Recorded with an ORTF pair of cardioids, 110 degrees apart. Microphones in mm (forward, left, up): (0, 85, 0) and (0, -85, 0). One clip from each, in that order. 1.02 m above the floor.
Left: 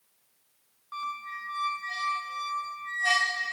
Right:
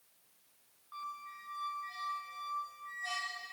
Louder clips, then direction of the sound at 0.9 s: Left 9 dB; 65° left.